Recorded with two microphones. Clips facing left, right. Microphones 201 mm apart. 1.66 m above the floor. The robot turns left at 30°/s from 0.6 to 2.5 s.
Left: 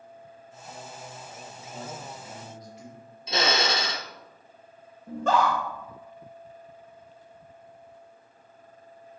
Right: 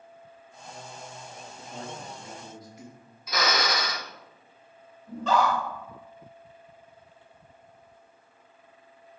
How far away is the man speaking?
About 2.5 m.